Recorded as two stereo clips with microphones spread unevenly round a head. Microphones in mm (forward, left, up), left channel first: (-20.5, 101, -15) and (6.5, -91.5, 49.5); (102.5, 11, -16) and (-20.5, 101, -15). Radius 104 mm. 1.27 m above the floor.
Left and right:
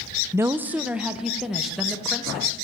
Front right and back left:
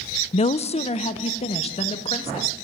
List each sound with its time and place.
0.3 s a woman speaking: 5° left, 0.8 m; by 2.5 s 10° left, 3 m